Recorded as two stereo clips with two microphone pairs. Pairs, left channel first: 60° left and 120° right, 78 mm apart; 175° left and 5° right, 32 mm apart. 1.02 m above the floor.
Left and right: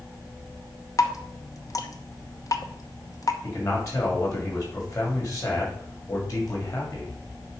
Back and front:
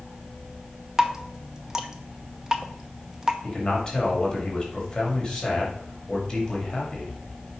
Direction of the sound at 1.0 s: 65° left.